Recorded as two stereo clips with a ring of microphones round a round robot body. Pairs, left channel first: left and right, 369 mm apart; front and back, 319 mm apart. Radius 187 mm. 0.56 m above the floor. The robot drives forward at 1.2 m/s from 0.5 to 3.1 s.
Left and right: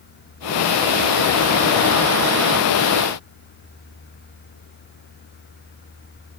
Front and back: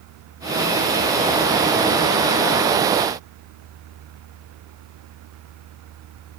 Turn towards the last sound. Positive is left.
No sound to turn to.